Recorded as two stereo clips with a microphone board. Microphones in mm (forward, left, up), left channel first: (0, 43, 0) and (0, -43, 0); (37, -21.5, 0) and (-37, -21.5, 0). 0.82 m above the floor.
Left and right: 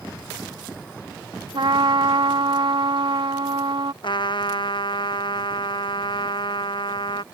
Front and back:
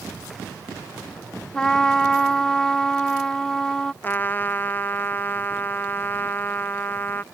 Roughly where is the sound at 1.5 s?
Right.